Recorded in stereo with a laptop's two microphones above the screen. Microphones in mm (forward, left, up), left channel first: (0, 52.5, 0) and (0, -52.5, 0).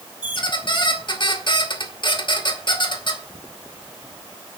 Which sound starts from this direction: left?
A squeak, at 0.2 s.